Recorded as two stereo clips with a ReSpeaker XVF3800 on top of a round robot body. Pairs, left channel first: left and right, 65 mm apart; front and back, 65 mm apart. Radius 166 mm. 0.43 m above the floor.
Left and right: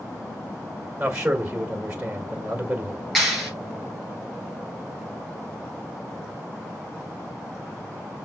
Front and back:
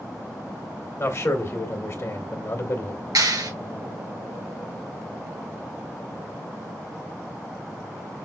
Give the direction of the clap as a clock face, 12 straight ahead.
6 o'clock.